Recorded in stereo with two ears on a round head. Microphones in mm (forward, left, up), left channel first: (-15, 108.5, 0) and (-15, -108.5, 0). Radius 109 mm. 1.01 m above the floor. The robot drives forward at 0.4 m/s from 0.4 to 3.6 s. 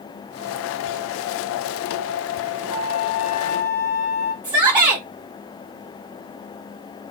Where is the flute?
70° left (ahead or behind), 3.5 m; by 4.3 s 65° left (ahead or behind), 4 m.